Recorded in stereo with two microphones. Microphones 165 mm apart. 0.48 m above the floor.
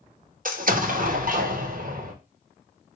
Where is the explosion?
55° right (ahead or behind), 0.6 m.